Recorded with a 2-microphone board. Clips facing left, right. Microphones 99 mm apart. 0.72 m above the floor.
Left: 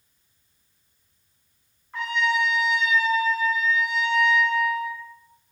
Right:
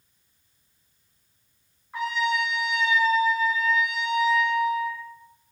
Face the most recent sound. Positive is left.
turn(degrees=-5)  # may be behind; listen again after turning